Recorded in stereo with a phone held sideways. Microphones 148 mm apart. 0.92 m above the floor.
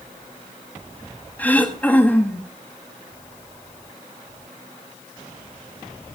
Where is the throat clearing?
10° left (ahead or behind), 1.6 m.